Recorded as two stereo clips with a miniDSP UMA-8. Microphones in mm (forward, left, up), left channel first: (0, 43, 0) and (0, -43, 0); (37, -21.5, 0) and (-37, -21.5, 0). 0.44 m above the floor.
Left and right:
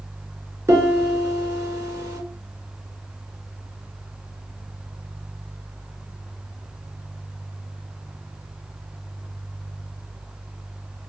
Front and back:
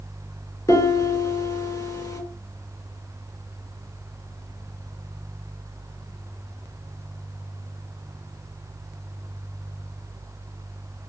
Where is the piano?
35° right, 2.5 m.